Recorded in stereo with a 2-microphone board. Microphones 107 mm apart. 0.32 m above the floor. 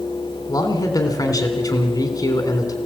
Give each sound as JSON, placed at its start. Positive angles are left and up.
{"t": 0.5, "sound": "a man speaking", "side_deg": 35, "distance_m": 3.5}